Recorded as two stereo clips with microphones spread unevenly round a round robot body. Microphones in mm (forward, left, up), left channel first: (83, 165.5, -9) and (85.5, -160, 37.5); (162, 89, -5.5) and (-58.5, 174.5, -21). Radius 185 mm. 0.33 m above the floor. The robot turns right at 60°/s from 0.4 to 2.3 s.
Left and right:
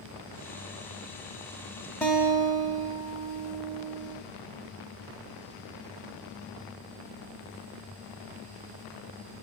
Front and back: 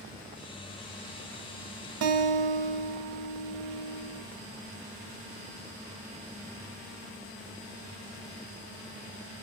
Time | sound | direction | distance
2.0 | a guitar | 170° left | 1.0 m